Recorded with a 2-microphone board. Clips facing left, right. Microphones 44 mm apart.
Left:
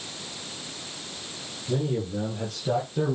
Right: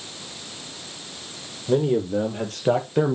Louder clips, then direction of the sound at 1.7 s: Right 7 dB; 55° right (ahead or behind).